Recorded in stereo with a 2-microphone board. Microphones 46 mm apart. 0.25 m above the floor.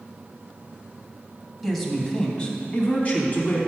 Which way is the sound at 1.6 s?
5° left (ahead or behind).